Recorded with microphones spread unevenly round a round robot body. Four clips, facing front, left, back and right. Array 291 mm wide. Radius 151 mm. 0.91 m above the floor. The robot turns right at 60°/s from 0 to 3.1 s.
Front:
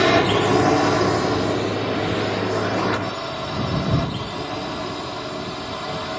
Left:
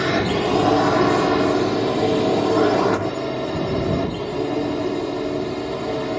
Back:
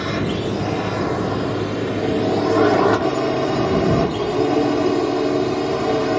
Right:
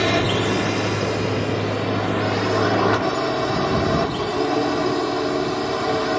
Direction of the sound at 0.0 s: Straight ahead.